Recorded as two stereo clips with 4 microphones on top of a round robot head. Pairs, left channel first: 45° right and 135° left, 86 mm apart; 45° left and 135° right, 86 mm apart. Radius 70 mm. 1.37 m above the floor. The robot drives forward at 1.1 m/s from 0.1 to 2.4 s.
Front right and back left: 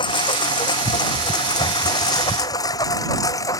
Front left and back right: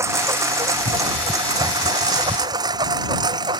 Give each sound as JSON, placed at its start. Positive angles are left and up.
{"t": 0.0, "sound": "a lawn mower", "azimuth_deg": -80}